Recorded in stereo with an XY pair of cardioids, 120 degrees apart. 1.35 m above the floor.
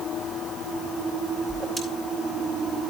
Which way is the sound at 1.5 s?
20° right.